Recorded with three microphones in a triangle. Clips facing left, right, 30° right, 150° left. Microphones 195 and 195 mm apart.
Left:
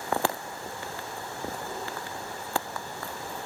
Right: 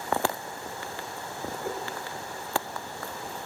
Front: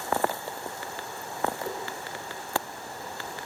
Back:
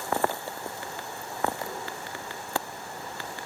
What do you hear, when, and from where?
1.6 s a whoosh: 95° right, 7.5 m